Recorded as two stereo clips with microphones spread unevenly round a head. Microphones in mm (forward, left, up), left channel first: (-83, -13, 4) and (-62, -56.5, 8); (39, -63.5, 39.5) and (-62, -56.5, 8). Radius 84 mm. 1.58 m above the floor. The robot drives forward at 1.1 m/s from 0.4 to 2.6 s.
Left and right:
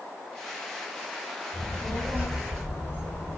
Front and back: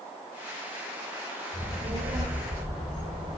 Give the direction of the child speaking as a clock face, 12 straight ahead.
7 o'clock.